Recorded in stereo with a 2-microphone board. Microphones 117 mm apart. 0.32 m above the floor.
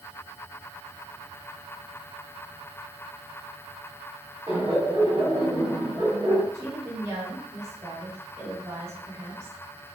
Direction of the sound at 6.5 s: 25° right (ahead or behind).